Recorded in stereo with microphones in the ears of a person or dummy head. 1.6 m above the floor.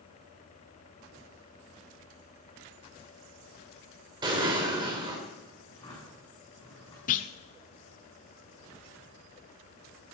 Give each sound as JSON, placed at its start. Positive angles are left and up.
{"t": 4.2, "sound": "an explosion", "side_deg": -25, "distance_m": 3.0}
{"t": 5.7, "sound": "a drawer", "side_deg": 25, "distance_m": 5.0}
{"t": 7.1, "sound": "a clunk", "side_deg": 45, "distance_m": 0.6}